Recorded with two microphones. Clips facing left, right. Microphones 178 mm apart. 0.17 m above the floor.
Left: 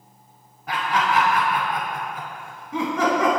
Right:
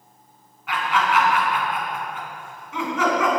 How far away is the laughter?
About 1.5 m.